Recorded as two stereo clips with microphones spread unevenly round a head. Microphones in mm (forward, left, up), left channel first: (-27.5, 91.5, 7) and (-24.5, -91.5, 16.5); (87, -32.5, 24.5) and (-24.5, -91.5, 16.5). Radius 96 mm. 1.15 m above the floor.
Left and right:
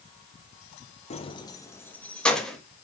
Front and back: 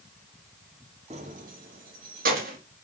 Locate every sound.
1.1 s keys jangling: 150° left, 0.6 m; by 2.6 s straight behind, 1.2 m